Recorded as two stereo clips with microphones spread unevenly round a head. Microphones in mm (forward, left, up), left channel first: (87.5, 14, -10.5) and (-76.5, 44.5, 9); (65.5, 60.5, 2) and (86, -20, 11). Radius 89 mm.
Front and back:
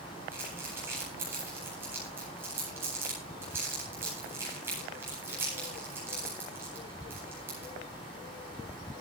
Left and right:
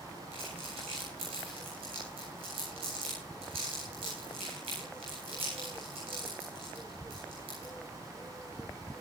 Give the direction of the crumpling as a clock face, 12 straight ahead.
4 o'clock.